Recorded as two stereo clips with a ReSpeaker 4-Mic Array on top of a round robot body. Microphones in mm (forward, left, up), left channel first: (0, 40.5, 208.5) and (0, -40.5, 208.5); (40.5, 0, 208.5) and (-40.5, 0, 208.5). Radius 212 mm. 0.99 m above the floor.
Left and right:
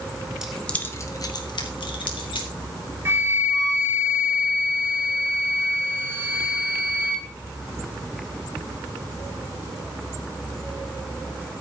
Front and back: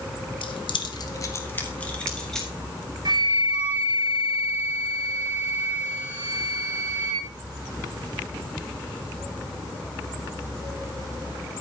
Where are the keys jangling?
5° right, 1.2 m; by 2.5 s 85° left, 2.5 m.